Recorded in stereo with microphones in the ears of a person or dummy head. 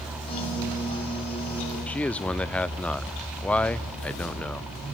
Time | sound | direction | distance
0.3 | a piano | 25° left (ahead or behind) | 7 m
1.9 | a man speaking | 10° left (ahead or behind) | 0.5 m